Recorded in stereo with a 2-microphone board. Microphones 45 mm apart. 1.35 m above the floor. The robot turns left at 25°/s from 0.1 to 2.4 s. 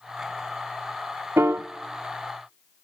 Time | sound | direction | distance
1.4 | a piano | 80° right | 0.5 m